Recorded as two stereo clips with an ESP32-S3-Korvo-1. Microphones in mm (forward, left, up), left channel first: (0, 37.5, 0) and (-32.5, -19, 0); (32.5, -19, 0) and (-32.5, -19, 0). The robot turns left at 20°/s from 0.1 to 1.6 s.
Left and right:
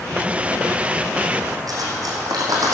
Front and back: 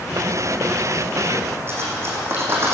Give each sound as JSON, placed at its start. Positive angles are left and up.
{"t": 1.7, "sound": "cutlery clinking", "azimuth_deg": -135, "distance_m": 3.0}